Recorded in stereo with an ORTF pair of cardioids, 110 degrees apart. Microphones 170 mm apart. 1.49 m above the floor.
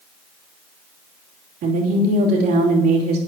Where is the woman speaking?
70° right, 3 m.